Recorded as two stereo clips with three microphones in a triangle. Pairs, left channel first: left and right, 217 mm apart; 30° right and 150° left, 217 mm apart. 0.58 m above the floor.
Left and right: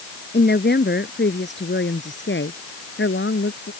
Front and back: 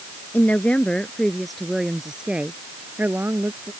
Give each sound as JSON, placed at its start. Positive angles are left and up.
{"t": 0.3, "sound": "a woman speaking", "azimuth_deg": 50}